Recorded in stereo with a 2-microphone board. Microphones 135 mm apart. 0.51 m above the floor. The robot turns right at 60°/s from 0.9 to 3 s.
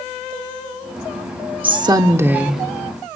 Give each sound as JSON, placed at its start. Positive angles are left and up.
{"t": 1.6, "sound": "a woman speaking", "azimuth_deg": -60, "distance_m": 1.0}